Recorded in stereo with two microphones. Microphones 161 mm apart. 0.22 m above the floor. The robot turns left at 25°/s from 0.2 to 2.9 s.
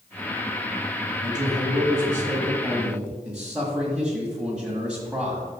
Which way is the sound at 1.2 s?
125° right.